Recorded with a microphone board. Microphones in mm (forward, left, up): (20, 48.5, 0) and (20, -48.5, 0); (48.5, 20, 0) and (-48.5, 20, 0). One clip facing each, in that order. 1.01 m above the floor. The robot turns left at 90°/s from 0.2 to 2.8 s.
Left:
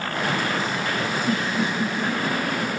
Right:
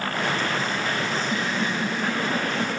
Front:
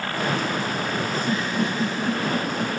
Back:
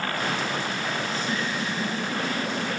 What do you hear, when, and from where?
1.1 s a giggle: 75° left, 6.5 m; by 2.8 s 80° right, 6.5 m